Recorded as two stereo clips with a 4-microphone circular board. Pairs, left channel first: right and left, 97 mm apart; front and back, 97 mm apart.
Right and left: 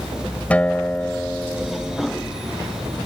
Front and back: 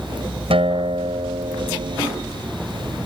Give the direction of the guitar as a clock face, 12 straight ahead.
6 o'clock.